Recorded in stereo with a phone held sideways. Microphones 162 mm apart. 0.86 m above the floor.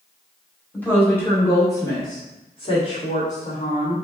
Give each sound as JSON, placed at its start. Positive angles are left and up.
{"t": 0.7, "sound": "a woman speaking", "side_deg": 10, "distance_m": 2.5}